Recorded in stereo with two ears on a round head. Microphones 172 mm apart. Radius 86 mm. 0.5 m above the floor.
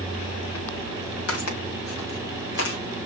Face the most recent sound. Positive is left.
turn(degrees=55)  # may be behind; listen again after turning